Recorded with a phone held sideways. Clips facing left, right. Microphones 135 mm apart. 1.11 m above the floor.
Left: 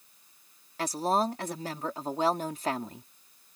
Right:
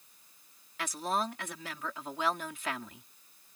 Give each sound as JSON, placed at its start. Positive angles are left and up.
{"t": 0.8, "sound": "a woman speaking", "side_deg": 40}